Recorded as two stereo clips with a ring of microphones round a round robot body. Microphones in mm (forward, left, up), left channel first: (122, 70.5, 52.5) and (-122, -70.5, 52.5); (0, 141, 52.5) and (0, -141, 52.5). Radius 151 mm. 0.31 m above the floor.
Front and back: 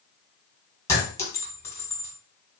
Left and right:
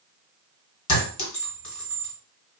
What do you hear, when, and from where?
0.9 s a clink: 110° left, 1.5 m